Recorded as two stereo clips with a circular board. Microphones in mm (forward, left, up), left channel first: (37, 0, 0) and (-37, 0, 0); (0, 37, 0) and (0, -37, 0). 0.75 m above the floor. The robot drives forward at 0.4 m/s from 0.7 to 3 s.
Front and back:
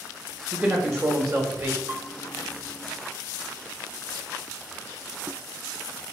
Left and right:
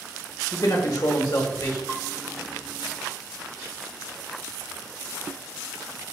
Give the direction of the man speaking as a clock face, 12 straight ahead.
8 o'clock.